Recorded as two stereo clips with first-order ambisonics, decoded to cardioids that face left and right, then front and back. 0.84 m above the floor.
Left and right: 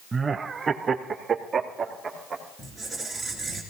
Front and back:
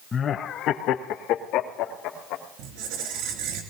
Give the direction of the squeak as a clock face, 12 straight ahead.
6 o'clock.